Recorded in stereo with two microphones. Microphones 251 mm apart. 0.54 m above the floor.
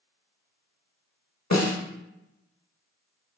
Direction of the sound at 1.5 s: 85° left.